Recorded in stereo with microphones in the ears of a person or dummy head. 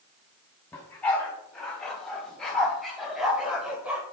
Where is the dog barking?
10° left (ahead or behind), 4.5 m; by 4.0 s 10° right (ahead or behind), 2.5 m.